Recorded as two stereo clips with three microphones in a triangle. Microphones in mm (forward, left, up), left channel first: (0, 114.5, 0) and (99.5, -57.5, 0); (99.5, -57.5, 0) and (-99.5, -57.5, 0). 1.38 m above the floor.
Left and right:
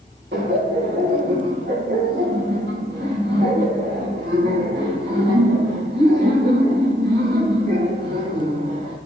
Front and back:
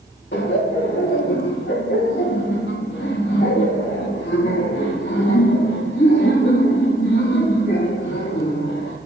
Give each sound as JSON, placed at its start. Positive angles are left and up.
{"t": 0.3, "sound": "laughter", "azimuth_deg": -25, "distance_m": 1.3}